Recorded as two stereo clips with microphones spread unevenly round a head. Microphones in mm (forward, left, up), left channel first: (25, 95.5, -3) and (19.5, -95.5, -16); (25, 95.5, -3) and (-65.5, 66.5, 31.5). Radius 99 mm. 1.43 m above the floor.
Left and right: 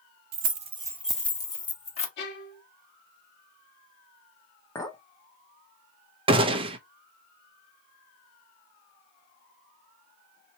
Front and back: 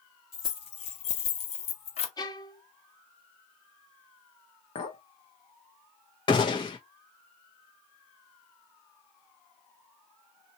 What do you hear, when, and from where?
0.3 s keys jangling: 65° right, 1.0 m; by 2.1 s 35° left, 1.7 m
2.2 s a violin: 75° left, 1.5 m
4.8 s a clink: 15° left, 1.0 m
6.3 s a gunshot: 40° right, 0.7 m